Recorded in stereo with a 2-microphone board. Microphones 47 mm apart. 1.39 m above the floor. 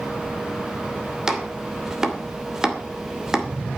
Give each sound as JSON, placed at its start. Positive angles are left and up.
{"t": 1.3, "sound": "chopping", "side_deg": -10, "distance_m": 2.5}